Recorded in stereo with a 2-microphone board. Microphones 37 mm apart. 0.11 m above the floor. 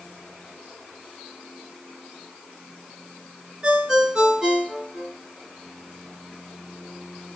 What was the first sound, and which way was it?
A ringtone, 20° right (ahead or behind).